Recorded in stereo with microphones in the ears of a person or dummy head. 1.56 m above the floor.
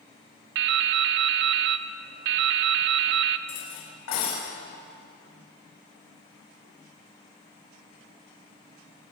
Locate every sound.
0.6 s dripping: 55° right (ahead or behind), 0.6 m
3.5 s cutlery clinking: 75° left (ahead or behind), 5.5 m